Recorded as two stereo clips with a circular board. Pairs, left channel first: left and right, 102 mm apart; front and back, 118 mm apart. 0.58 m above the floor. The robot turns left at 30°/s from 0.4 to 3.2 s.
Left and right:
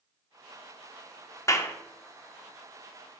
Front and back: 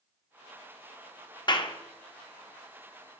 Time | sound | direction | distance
1.5 | a clap | 35° left | 0.7 m